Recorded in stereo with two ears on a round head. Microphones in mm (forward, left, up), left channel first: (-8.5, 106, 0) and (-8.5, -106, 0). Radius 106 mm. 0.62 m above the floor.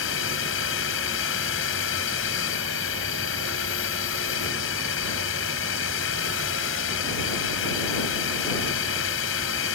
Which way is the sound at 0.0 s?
60° left (ahead or behind).